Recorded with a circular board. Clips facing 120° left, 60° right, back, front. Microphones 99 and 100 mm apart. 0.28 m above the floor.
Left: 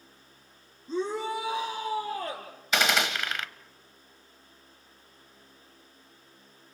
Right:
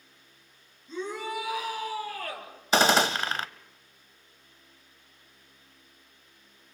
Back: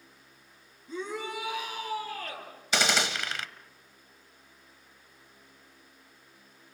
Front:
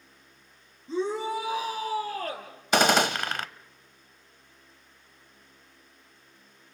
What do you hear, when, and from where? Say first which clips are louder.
0.9 s a shout: left 4 dB, front 7 dB; 65° left, 3.5 m; by 2.5 s 50° left, 5.5 m
2.7 s a gunshot: right 5 dB, front 7 dB; 15° right, 0.6 m